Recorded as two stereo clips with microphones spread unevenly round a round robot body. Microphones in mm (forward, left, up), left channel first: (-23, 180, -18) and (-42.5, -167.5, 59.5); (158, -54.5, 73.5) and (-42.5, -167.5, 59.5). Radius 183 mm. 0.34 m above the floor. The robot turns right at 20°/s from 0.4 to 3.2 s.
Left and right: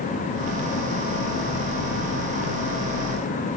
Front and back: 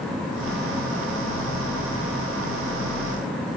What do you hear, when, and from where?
Only background noise.